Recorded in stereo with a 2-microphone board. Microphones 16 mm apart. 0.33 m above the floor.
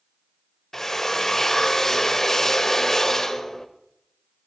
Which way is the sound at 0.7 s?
30° left (ahead or behind).